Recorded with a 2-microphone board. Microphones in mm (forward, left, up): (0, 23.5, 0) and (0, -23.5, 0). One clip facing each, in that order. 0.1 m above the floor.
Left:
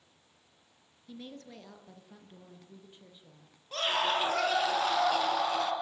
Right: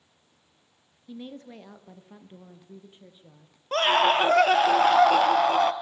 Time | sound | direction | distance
1.1 | a woman speaking | 20° right (ahead or behind) | 1.5 m
3.7 | a scream | 55° right (ahead or behind) | 2.0 m